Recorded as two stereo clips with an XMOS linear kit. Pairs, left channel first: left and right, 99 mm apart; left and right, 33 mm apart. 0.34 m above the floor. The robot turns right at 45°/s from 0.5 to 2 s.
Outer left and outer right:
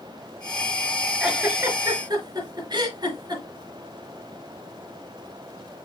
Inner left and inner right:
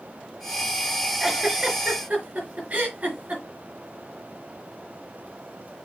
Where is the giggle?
5° right (ahead or behind), 4 m; by 3.4 s 40° right (ahead or behind), 4 m.